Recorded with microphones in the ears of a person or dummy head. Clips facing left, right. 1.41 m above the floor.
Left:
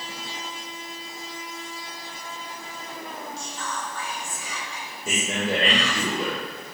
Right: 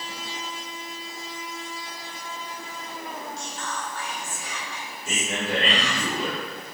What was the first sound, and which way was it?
Whispering, 85° left.